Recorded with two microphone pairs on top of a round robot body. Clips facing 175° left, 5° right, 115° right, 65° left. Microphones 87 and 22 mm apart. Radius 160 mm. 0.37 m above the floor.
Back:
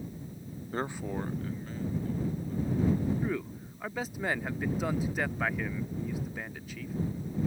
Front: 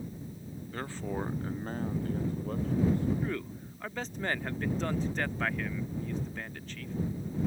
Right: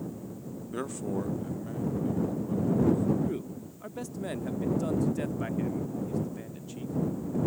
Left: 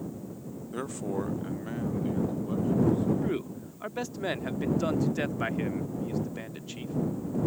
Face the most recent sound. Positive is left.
turn(degrees=95)